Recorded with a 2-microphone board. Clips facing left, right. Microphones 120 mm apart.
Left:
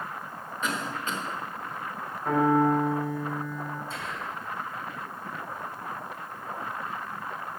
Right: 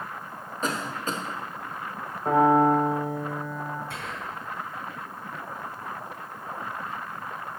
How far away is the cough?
About 1.0 m.